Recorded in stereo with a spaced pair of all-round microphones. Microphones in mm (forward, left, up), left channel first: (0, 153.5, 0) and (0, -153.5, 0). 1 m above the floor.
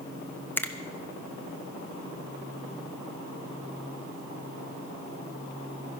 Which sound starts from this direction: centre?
A finger snap, at 0.6 s.